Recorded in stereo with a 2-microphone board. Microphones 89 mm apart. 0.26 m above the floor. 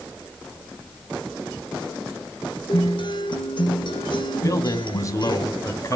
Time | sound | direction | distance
2.7 | a guitar | 60° left (ahead or behind) | 2.5 m
4.4 | a man speaking | 35° left (ahead or behind) | 1.9 m